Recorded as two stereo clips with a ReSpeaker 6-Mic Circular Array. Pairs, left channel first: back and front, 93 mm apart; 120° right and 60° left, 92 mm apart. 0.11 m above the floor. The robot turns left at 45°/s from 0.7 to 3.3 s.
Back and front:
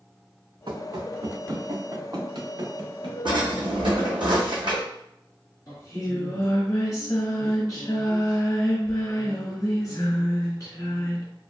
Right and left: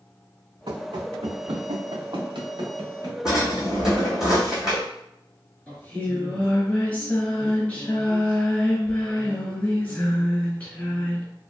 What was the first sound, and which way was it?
Running footsteps, 35° left.